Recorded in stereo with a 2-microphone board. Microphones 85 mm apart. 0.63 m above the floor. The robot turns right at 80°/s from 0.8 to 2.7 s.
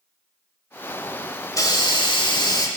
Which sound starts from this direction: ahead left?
A hiss, at 1.5 s.